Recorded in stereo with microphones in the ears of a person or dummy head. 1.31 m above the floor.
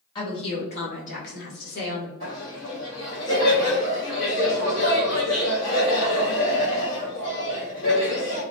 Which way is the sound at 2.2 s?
45° left (ahead or behind).